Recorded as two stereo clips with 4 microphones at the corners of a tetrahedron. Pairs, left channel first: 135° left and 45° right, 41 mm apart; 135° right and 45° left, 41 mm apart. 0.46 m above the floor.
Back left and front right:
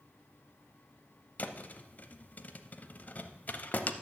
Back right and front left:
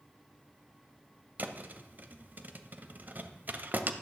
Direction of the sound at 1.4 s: 85° left.